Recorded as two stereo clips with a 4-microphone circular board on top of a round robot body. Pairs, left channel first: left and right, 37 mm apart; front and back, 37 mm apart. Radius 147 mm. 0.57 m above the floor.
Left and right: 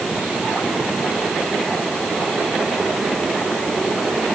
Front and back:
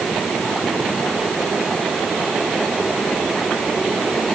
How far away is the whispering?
I don't hear whispering.